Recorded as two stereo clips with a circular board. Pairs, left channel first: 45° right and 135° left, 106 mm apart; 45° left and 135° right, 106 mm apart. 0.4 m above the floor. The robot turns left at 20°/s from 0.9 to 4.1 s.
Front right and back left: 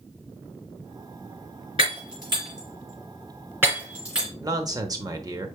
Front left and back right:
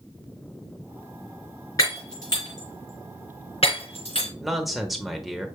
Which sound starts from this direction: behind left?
A man speaking, at 4.4 s.